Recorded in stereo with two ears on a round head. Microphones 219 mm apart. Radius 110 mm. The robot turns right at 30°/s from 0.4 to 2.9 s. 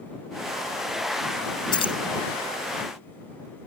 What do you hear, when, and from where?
1.7 s keys jangling: 20° left (ahead or behind); by 2.0 s 25° left (ahead or behind)